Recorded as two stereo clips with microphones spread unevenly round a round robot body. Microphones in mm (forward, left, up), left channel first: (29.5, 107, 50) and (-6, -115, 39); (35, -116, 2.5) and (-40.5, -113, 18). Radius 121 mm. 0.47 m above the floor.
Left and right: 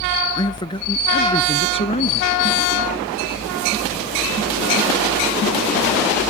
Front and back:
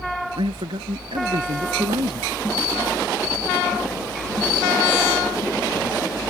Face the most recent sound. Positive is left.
turn(degrees=145)